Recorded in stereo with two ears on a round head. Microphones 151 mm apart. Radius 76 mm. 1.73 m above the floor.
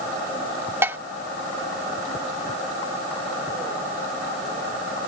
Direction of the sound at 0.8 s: 15° right (ahead or behind).